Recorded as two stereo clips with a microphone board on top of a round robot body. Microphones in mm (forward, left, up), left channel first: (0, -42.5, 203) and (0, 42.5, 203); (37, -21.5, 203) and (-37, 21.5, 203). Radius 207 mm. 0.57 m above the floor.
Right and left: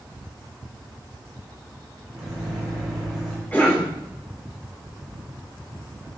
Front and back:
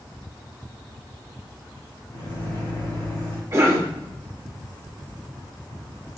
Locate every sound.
2.1 s a microwave: straight ahead, 2.5 m
3.5 s a cough: 155° right, 2.5 m